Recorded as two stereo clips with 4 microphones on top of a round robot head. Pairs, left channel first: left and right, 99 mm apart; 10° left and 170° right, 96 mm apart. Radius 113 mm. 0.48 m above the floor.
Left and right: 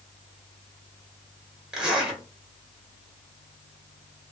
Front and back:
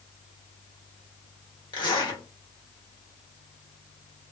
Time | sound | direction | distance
1.7 | a zipper | 10° right | 1.5 m